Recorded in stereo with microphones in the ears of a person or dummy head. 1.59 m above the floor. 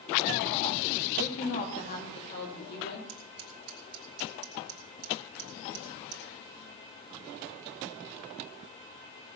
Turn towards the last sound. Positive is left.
turn(degrees=-45)  # may be behind; listen again after turning